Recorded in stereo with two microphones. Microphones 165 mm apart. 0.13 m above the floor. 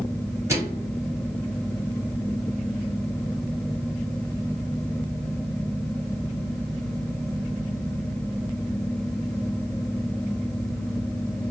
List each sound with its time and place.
0.5 s a microwave: 20° right (ahead or behind), 2.5 m